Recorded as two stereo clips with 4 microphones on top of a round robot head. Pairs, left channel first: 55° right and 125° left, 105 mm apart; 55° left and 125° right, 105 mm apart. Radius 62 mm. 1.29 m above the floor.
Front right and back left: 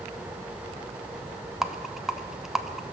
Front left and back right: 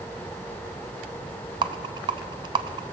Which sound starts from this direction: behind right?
A rattle, at 1.6 s.